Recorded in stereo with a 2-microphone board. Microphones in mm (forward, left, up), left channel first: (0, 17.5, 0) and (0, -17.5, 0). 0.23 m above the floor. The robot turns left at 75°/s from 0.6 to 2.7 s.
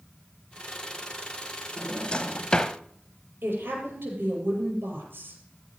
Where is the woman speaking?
75° right (ahead or behind), 6 m.